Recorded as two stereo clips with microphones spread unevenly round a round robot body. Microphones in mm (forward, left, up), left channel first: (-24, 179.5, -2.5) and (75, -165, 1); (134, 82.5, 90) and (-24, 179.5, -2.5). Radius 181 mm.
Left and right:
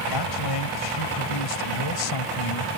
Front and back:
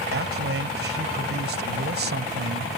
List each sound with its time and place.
0.1 s a man speaking: 135° left